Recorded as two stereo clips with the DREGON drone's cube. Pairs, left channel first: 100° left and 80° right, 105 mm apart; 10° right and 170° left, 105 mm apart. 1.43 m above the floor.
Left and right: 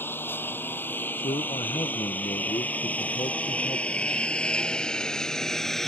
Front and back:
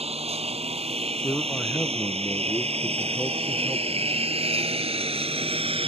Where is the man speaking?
65° left.